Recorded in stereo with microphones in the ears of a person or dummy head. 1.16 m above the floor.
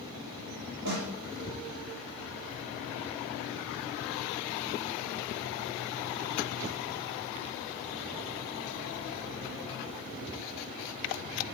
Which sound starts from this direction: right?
A snare drum, at 0.8 s.